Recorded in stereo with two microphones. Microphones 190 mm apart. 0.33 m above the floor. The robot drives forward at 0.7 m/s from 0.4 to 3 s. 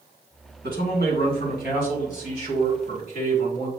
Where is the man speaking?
65° left (ahead or behind), 2 m; by 3.7 s 40° left (ahead or behind), 3 m.